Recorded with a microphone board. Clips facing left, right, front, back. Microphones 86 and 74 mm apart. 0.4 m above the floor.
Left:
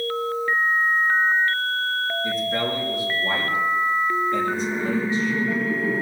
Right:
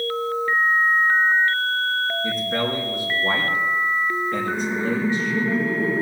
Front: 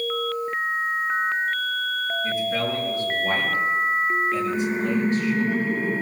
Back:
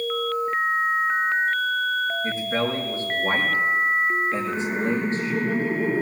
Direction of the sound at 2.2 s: 120° right.